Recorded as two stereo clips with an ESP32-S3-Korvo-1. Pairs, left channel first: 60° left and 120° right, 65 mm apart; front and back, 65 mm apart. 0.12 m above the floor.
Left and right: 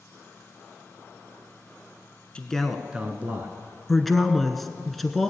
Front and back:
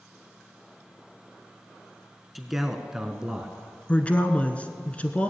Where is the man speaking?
95° left, 1.2 m; by 3.5 s 110° right, 1.4 m.